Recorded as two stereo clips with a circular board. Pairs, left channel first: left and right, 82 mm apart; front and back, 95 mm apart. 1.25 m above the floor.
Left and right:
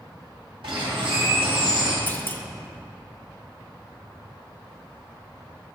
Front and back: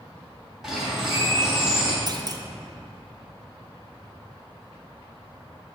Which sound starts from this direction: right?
A bird, at 0.6 s.